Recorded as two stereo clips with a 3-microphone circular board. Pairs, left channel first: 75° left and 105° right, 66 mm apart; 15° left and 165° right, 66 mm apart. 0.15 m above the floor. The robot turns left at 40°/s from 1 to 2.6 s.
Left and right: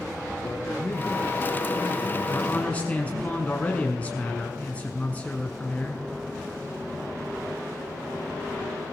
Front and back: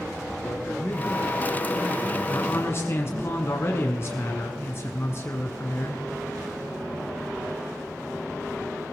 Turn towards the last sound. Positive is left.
turn(degrees=15)